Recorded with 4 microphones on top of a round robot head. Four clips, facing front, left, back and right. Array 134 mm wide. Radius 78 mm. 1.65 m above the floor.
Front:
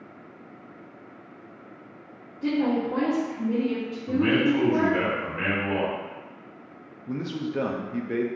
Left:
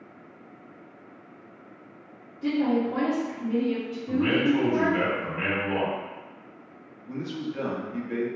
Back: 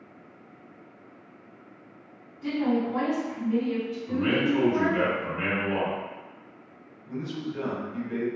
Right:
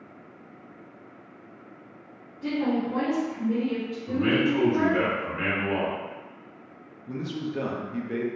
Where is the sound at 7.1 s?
10° right, 0.6 m.